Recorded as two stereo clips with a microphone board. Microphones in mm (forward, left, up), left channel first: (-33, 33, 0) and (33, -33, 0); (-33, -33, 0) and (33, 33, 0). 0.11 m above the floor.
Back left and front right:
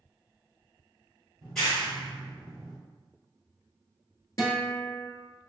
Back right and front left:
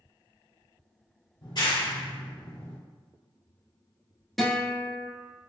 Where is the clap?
140° right, 1.6 m.